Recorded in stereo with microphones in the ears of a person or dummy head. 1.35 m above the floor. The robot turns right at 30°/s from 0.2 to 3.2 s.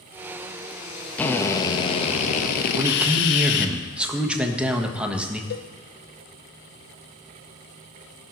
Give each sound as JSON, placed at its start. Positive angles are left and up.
{"t": 1.2, "sound": "a drill", "azimuth_deg": 10, "distance_m": 1.1}
{"t": 2.7, "sound": "a man speaking", "side_deg": -20, "distance_m": 1.3}
{"t": 5.5, "sound": "a cowbell", "side_deg": 55, "distance_m": 0.6}